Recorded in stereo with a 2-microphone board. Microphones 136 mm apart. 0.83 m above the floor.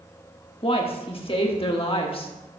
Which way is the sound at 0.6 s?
40° left (ahead or behind).